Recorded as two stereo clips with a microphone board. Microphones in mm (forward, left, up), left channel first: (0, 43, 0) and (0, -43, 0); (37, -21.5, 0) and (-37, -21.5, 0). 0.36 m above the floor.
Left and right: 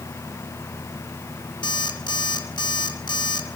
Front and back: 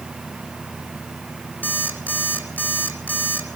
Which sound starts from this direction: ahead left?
An alarm clock, at 1.6 s.